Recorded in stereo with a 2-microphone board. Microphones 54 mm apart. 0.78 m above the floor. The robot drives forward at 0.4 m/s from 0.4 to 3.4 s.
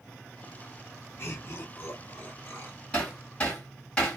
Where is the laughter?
45° left (ahead or behind), 1.9 m; by 2.8 s 35° left (ahead or behind), 2.5 m.